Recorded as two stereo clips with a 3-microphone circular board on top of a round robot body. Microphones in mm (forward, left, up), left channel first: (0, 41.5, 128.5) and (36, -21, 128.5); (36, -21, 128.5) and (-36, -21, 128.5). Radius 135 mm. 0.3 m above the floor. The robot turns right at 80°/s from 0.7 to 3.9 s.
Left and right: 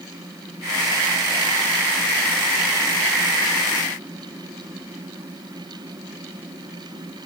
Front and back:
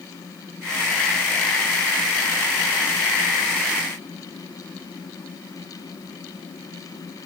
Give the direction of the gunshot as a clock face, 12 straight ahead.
No gunshot in this recording.